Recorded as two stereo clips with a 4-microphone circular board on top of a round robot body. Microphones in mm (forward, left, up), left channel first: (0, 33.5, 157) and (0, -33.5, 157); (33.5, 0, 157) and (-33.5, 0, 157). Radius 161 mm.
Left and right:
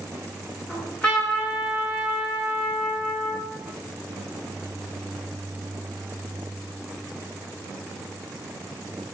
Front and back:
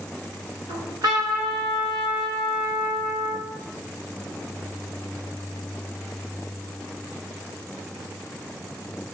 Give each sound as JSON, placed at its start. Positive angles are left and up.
{"t": 0.7, "sound": "a trumpet", "azimuth_deg": 165, "distance_m": 6.0}